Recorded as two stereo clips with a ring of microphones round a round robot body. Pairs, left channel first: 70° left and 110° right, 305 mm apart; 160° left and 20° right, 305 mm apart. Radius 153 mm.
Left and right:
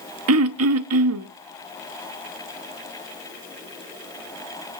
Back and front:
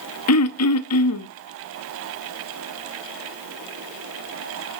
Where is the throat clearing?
160° right, 0.9 m.